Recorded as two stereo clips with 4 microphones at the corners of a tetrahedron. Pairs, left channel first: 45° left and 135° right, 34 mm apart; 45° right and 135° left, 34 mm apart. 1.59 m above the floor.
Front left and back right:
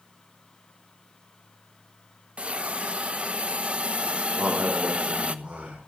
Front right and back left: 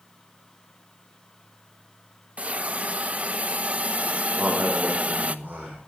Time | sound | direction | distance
2.4 | a hiss | straight behind | 1.0 m
4.3 | a man speaking | straight behind | 6 m